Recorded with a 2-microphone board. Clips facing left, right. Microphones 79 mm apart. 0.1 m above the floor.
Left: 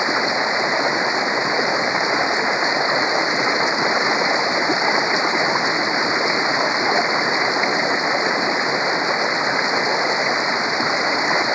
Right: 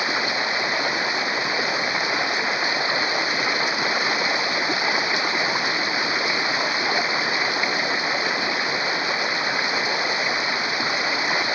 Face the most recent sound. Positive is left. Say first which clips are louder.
# left 5 dB
turn(degrees=20)  # may be behind; listen again after turning